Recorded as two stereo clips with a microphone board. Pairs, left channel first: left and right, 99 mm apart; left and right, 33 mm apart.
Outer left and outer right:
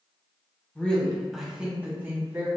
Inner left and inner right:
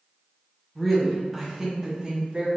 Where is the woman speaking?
15° left (ahead or behind), 1.7 m; by 2.5 s 35° right (ahead or behind), 1.9 m.